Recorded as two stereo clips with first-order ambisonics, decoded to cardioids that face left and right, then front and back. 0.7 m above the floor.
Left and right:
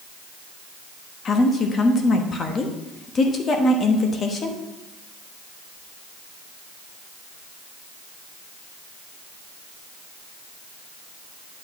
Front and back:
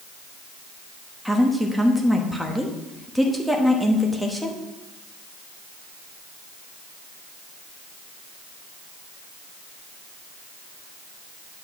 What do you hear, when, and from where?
1.2 s a woman speaking: 85° left, 1.0 m